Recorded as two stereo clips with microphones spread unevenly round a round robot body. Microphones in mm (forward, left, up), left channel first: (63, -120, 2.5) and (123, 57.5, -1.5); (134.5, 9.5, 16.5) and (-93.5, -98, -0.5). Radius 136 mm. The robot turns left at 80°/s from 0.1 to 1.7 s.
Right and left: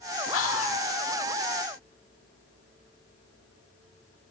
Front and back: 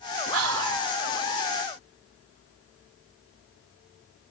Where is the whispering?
120° right, 2 m; by 0.8 s 160° right, 2 m.